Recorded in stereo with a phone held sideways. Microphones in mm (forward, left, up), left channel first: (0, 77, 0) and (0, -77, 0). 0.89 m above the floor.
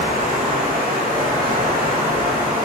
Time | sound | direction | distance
0.0 | running water | 50° right (ahead or behind) | 5 m